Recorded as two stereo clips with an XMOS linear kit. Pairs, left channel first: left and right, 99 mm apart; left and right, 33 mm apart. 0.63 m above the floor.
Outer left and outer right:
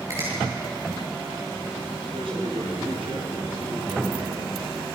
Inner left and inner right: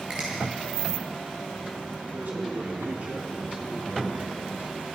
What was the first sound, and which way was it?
A finger snap, 30° right (ahead or behind).